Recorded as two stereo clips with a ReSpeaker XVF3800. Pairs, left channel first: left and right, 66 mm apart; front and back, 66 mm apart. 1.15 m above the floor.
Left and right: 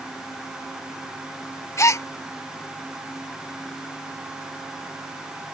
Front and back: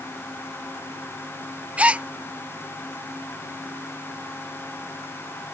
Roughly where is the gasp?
Behind left.